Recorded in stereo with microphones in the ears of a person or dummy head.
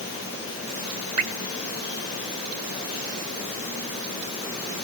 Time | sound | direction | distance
1.2 | dripping | 35° right (ahead or behind) | 1.5 m